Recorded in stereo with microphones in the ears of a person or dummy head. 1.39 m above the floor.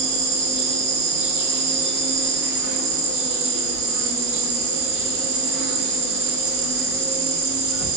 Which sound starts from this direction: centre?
An insect, at 0.0 s.